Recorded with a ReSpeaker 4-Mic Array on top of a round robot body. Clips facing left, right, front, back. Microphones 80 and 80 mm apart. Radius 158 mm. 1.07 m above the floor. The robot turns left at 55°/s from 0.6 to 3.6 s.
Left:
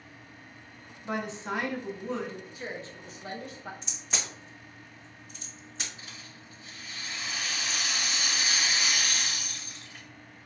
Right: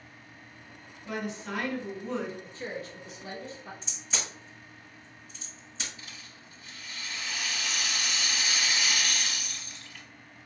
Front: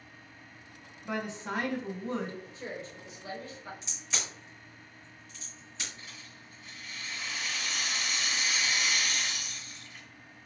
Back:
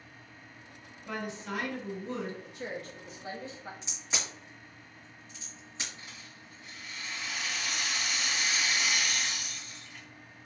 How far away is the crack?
About 1.7 m.